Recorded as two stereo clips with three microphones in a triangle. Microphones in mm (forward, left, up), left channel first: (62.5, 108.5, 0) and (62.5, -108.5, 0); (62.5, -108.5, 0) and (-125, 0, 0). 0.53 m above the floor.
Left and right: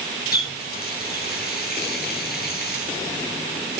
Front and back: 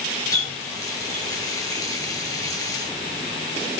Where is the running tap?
45° left, 5.5 m.